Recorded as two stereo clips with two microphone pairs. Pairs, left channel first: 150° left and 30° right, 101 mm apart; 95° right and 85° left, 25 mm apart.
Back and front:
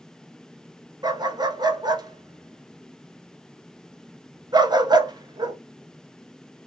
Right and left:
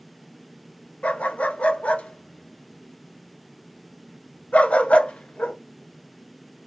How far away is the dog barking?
About 0.6 m.